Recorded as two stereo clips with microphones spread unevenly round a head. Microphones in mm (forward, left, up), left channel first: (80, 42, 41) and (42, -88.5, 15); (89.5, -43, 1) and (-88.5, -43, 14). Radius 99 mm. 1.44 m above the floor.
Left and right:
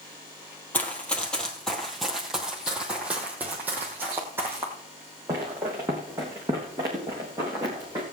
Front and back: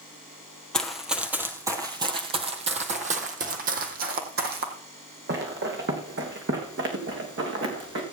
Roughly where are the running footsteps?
Left.